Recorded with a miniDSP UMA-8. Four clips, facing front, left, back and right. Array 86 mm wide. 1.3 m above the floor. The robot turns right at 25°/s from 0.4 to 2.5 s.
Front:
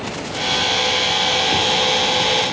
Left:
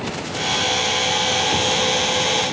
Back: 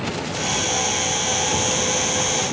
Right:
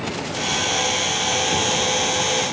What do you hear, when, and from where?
Only background noise.